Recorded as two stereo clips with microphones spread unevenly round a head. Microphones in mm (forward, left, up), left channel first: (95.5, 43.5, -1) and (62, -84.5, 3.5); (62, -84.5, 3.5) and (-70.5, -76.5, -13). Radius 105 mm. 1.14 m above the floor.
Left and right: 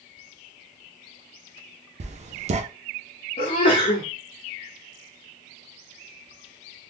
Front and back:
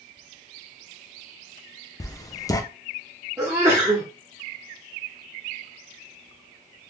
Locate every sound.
2.0 s writing: 70° right, 0.6 m
3.4 s a sneeze: 105° left, 0.9 m